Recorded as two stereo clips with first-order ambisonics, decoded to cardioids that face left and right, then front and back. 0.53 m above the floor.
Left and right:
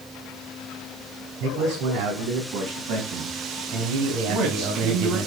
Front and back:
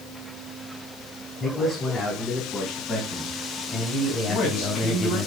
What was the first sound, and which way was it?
A man speaking, 80° right.